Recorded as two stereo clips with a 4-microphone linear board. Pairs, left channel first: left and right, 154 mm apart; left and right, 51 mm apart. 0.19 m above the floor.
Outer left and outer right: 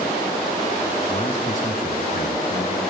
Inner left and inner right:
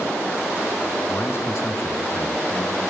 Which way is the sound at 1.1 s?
35° left (ahead or behind).